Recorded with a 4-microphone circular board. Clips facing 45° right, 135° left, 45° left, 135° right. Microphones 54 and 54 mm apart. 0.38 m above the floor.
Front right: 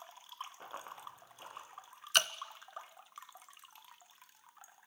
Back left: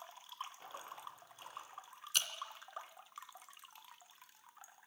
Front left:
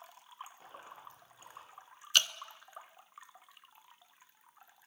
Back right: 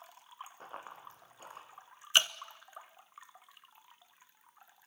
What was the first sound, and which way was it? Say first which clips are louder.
Running footsteps: front right 2 dB, back right 3 dB; 95° right.